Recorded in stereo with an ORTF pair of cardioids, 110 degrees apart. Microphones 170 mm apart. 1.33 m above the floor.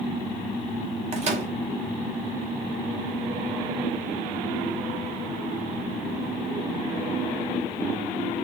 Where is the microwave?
40° right, 3 m.